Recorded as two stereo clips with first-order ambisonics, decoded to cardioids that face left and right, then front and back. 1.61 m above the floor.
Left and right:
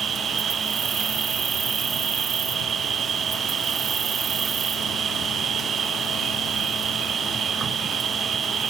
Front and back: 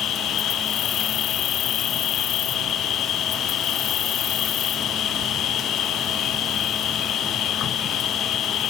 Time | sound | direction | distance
0.0 | an insect | 40° right | ?